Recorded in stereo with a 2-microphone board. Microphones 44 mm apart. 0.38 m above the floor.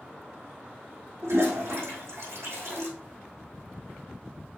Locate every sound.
1.2 s a toilet flushing: 80° right, 4 m